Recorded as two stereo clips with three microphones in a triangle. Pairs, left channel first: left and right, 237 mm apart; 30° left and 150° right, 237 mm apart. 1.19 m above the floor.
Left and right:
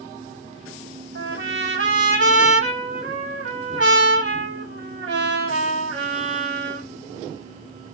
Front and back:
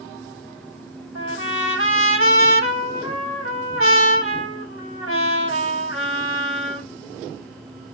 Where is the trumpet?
130° right, 1.8 m.